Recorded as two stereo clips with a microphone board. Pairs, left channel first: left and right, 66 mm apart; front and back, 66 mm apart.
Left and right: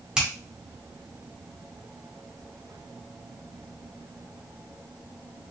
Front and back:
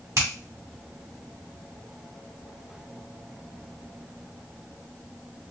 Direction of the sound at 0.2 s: 165° right.